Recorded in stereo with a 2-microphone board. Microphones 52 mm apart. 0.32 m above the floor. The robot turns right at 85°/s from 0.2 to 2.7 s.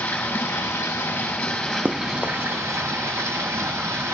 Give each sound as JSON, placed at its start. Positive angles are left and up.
{"t": 0.0, "sound": "running water", "azimuth_deg": 50, "distance_m": 5.5}
{"t": 1.9, "sound": "running footsteps", "side_deg": -40, "distance_m": 0.6}